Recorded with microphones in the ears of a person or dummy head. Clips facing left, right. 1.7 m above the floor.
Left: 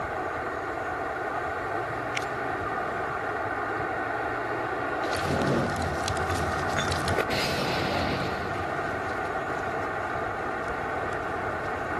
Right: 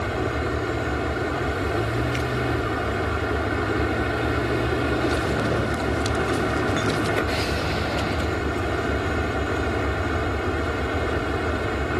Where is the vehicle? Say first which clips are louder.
Right 6 dB; 45° right (ahead or behind).